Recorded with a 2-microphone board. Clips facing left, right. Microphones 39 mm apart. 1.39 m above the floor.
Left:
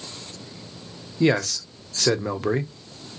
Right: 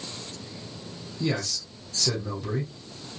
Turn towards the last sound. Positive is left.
turn(degrees=60)  # may be behind; listen again after turning